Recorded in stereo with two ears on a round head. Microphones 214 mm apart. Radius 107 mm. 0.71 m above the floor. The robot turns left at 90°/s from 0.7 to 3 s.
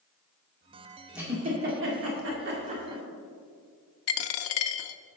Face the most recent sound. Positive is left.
turn(degrees=60)  # may be behind; listen again after turning